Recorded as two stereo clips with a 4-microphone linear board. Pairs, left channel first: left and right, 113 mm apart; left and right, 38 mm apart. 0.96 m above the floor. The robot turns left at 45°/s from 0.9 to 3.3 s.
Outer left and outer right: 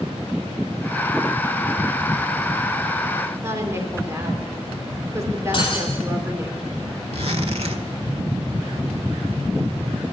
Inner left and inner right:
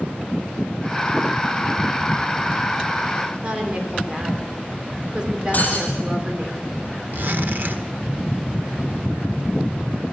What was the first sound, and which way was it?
A woman speaking, 25° right (ahead or behind).